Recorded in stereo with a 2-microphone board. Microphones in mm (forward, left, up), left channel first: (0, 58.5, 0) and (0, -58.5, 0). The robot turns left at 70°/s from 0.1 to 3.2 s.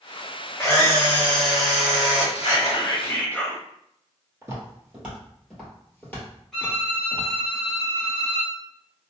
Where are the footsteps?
25° right (ahead or behind), 1.6 m; by 7.3 s 40° left (ahead or behind), 1.9 m.